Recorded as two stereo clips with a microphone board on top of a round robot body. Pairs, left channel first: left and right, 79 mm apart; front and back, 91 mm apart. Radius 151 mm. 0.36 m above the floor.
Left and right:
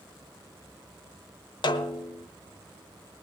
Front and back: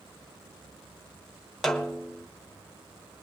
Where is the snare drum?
85° left, 1.3 m.